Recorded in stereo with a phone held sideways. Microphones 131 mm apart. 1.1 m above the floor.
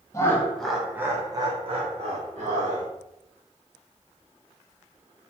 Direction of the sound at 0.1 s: 25° left (ahead or behind).